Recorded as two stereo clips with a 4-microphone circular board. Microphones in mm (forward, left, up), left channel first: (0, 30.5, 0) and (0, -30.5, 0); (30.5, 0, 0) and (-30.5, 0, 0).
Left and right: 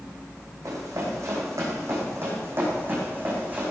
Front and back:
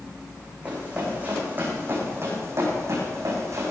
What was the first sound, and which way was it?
Running footsteps, 115° right.